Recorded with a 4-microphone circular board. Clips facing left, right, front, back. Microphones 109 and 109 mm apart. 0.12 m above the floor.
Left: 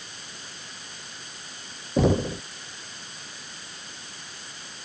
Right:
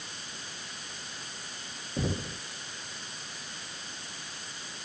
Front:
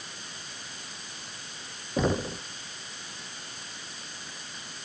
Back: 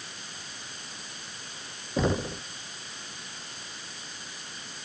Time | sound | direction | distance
2.0 | knocking | 90° left | ?